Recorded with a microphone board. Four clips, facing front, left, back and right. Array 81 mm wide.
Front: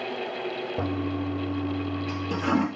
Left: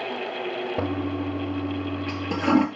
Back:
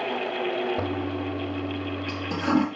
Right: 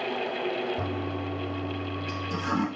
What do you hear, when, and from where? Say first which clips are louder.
0.8 s a toilet flushing: left 5 dB, even; 85° left, 2.5 m